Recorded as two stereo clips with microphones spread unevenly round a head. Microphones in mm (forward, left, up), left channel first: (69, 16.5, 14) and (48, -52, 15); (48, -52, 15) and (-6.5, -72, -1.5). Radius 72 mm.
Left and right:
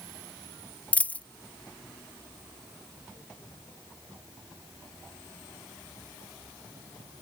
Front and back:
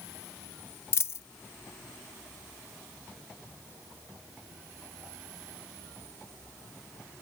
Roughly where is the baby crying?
No baby crying in this recording.